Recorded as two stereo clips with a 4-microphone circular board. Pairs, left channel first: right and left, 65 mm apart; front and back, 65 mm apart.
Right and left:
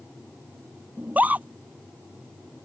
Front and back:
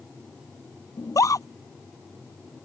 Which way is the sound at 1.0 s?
25° left.